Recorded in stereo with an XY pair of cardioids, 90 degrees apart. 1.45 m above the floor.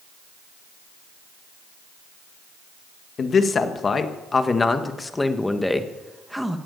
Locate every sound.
3.2 s a man speaking: 55° left, 1.9 m; by 6.6 s 5° right, 1.8 m